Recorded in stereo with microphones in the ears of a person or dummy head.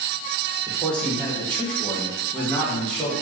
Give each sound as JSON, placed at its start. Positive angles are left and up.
{"t": 0.7, "sound": "a man speaking", "side_deg": 10, "distance_m": 1.5}